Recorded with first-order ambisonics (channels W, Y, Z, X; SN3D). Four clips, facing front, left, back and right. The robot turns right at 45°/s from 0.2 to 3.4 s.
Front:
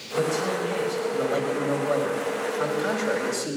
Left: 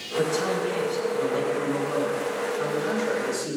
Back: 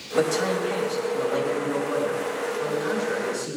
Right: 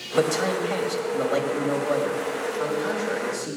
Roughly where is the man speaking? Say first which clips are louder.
Right 2 dB, back 2 dB; behind right.